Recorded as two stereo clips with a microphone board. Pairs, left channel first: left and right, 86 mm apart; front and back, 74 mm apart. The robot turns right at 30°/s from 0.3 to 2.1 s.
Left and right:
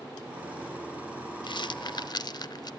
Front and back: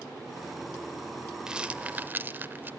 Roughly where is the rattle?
Left.